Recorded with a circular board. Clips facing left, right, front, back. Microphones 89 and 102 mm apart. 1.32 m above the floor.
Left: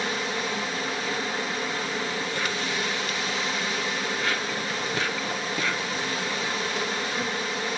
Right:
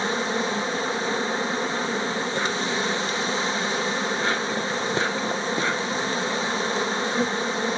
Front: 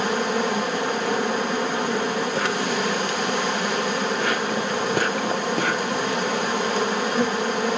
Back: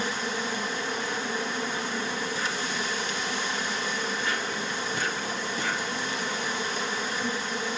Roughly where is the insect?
Ahead right.